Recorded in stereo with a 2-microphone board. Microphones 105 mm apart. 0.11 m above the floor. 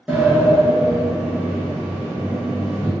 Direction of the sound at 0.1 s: 10° right (ahead or behind).